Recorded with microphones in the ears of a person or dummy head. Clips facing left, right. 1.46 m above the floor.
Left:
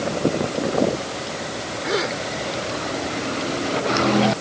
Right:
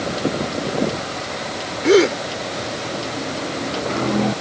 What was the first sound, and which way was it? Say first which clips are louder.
A gasp: right 12 dB; 40° right (ahead or behind).